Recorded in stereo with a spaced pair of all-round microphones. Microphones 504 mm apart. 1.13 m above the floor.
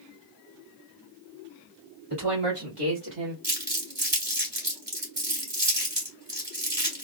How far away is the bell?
I don't hear a bell.